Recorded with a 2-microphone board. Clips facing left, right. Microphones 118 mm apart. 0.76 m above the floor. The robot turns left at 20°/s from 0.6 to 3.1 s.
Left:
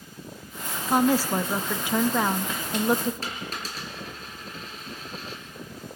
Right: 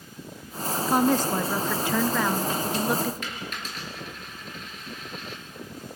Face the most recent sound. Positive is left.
turn(degrees=35)  # may be behind; listen again after turning